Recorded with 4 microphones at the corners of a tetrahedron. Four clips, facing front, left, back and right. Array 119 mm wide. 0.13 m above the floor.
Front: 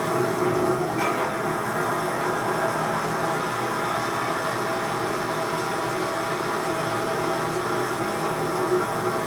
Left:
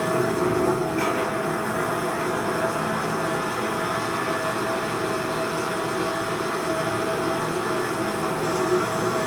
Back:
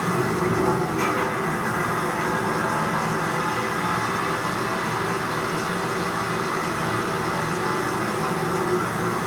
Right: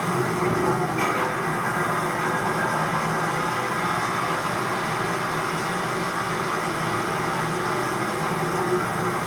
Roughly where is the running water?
Behind left.